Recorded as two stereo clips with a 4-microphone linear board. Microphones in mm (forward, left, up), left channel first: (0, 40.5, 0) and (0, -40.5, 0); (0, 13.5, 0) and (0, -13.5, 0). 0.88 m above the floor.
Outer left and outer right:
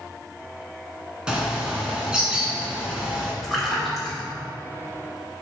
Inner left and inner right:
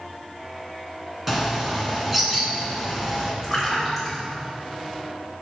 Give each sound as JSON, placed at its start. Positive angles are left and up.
{"t": 1.3, "sound": "a bird", "side_deg": -10, "distance_m": 1.8}
{"t": 3.4, "sound": "a splash", "side_deg": 0, "distance_m": 2.5}